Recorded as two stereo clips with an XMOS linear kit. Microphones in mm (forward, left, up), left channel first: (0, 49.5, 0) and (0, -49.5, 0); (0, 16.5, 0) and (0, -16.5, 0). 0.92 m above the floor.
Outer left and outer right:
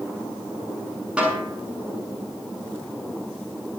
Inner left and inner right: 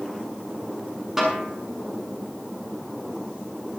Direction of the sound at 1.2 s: 10° right (ahead or behind).